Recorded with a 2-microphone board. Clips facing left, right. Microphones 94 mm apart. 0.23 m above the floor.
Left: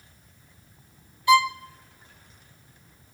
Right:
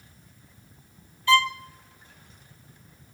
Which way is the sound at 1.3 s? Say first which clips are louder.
Left 3 dB; 15° left (ahead or behind).